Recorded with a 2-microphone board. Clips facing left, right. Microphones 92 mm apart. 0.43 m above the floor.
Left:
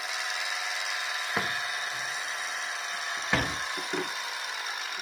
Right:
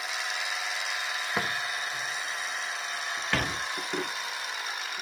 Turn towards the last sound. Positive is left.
turn(degrees=20)  # may be behind; listen again after turning